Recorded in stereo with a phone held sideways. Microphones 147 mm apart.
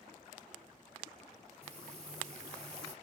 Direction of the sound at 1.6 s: 45° right (ahead or behind).